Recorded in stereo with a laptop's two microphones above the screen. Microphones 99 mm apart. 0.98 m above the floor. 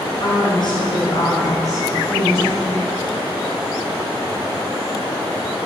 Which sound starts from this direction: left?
A woman speaking, at 0.2 s.